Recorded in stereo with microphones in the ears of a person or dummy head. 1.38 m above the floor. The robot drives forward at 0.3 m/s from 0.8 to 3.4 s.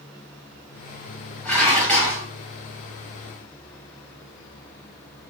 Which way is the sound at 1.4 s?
5° left (ahead or behind).